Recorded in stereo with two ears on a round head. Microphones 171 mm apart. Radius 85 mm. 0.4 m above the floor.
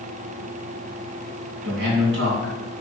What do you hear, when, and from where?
1.6 s a man speaking: 70° right (ahead or behind), 4 m